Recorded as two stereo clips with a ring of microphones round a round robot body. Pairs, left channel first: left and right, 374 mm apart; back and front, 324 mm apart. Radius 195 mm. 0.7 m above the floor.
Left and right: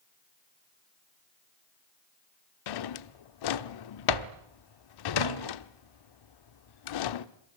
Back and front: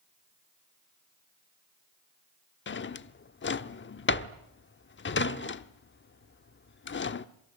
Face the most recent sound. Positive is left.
turn(degrees=120)